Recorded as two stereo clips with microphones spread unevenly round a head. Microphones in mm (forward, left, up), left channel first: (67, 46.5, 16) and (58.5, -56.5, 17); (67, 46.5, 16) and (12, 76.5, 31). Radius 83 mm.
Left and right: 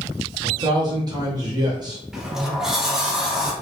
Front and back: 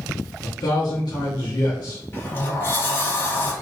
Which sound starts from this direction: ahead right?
A man speaking, at 0.4 s.